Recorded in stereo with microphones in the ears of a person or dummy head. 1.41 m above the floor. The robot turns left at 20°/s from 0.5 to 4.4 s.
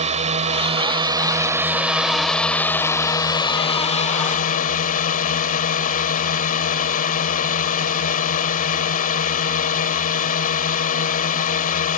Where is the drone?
145° right; by 12.0 s 135° left.